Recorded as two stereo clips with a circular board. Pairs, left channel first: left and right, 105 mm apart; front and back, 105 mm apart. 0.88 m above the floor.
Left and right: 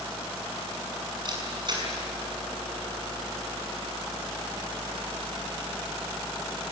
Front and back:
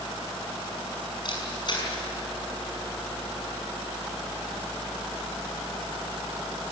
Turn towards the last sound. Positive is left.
turn(degrees=-45)